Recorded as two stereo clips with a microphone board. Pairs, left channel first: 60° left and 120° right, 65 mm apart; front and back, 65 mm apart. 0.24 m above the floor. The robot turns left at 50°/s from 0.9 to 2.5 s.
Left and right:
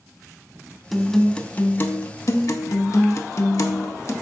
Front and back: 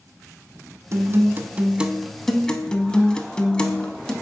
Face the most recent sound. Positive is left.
turn(degrees=75)